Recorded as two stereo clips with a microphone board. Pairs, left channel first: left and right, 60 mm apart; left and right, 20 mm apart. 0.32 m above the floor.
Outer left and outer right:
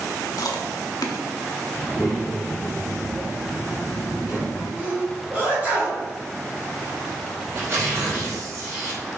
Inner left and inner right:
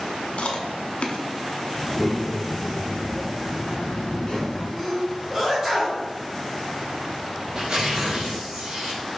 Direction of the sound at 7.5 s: 45° right (ahead or behind).